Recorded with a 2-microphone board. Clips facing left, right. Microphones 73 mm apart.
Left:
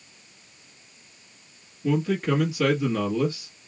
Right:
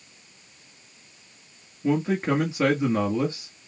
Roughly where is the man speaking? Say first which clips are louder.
Right 1 dB; right.